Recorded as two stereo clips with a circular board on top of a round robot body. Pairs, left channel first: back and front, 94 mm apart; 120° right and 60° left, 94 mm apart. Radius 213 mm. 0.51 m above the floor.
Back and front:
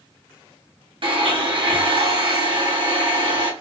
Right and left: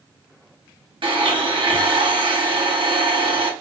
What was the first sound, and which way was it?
A blender, 30° left.